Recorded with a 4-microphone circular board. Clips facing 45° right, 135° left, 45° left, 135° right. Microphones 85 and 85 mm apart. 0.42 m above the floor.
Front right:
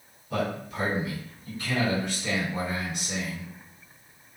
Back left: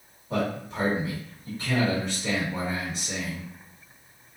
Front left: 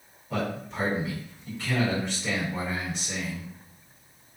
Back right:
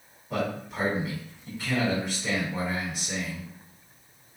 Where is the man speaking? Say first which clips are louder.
Back left 1 dB, back right 1 dB; 145° left, 1.5 m.